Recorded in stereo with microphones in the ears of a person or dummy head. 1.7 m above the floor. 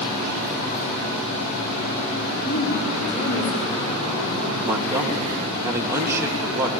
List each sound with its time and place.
2.4 s a woman speaking: 40° left (ahead or behind), 5 m
4.6 s a man speaking: 15° right (ahead or behind), 2.5 m